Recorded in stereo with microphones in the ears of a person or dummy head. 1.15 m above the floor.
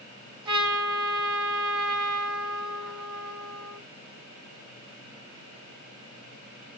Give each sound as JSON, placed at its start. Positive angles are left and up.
{"t": 0.5, "sound": "a trumpet", "side_deg": -25, "distance_m": 3.0}